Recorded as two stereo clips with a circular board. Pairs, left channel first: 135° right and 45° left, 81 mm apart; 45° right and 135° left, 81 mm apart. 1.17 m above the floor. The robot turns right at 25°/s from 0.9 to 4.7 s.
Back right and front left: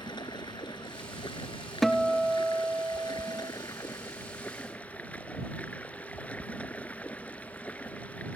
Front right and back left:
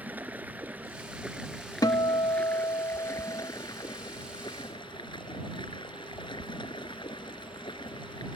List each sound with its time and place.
0.0 s running water: 155° right; by 8.4 s 60° right
1.8 s a guitar: 50° right; by 3.5 s 5° right